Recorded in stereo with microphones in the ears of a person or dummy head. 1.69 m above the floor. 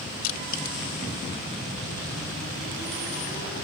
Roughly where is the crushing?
Left.